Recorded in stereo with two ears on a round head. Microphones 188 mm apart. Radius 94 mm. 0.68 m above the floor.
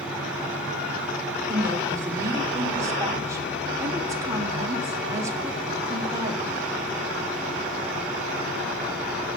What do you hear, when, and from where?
1.5 s a woman speaking: 15° right (ahead or behind), 2.5 m